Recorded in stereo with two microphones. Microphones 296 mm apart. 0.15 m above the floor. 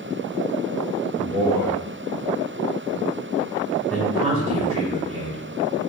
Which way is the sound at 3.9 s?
20° right (ahead or behind).